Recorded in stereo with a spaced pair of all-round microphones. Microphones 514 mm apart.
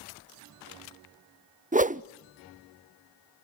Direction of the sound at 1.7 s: 15° right (ahead or behind).